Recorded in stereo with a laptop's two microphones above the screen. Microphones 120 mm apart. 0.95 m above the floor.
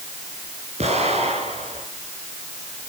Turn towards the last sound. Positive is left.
turn(degrees=-65)  # may be behind; listen again after turning